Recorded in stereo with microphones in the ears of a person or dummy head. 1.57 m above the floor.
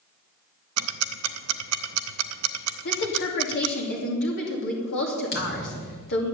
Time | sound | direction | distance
0.8 | ticking | 80° right | 0.5 m
2.9 | a woman speaking | 60° left (ahead or behind) | 3 m
5.3 | a thud | 55° left (ahead or behind) | 2 m